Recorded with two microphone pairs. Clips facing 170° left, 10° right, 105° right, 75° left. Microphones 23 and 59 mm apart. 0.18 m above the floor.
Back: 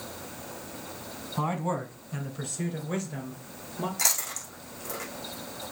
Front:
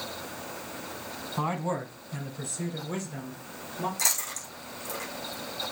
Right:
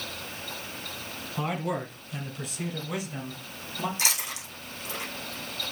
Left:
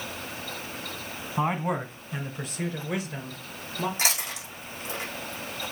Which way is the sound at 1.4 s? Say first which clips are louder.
Back 1 dB, left 3 dB; 70° left.